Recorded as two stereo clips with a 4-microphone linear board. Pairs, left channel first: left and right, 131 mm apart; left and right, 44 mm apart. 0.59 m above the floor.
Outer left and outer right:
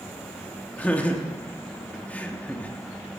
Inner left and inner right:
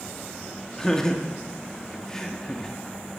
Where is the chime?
No chime in this recording.